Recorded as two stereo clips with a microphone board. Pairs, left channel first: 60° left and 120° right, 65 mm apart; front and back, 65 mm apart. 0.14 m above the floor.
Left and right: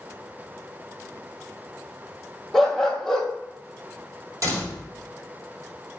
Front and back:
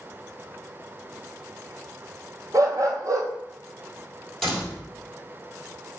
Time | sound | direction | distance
2.5 | a dog barking | 145° left | 1.3 m
4.4 | a door slam | 85° right | 3.5 m